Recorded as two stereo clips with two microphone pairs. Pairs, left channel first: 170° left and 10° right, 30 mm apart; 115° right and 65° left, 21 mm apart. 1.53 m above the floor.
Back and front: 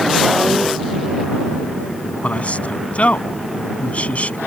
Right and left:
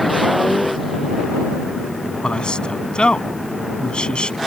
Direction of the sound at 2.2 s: 155° right.